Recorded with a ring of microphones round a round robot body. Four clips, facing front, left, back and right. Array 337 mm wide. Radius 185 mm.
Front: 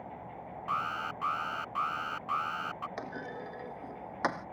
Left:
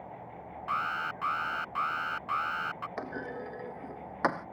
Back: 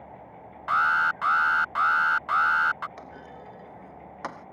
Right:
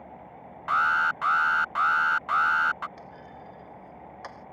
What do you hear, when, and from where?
0.7 s an alarm: 140° right
3.0 s a clunk: 75° left